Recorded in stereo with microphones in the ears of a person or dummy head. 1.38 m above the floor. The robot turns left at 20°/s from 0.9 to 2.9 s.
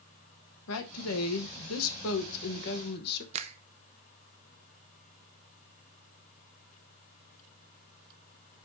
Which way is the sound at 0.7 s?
100° left.